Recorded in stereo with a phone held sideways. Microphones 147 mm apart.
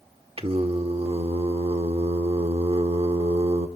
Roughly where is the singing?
Right.